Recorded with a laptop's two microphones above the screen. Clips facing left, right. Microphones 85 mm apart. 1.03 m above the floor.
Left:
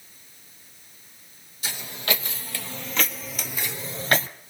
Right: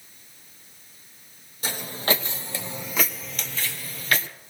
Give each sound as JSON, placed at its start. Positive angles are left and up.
{"t": 1.6, "sound": "footsteps", "side_deg": -45, "distance_m": 2.0}